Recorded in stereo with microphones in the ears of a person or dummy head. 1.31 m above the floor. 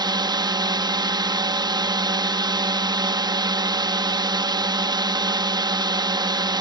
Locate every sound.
0.0 s a drone: 20° right (ahead or behind)